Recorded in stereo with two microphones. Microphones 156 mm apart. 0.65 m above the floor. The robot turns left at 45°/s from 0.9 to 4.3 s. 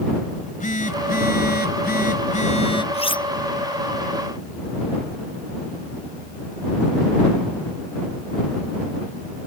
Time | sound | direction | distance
0.3 | a phone buzzing | 120° left | ?
2.9 | cutlery clinking | 40° left (ahead or behind) | ?